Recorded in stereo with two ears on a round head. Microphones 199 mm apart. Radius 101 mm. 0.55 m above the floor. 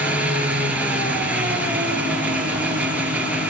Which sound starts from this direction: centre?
An engine running, at 0.0 s.